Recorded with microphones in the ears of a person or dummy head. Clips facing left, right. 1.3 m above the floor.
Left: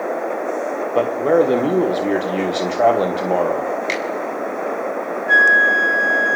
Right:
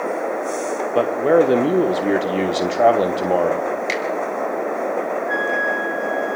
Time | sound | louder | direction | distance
0.9 | a man speaking | even | 5° right (ahead or behind) | 1.1 m
3.9 | a finger snap | even | centre (ahead or behind) | 3.5 m
5.3 | a flute | left 1 dB | 75° left (ahead or behind) | 0.8 m